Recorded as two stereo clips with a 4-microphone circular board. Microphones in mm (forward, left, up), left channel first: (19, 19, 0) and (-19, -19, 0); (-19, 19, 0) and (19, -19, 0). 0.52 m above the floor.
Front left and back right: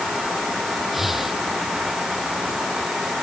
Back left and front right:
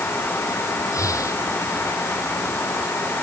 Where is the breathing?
140° left.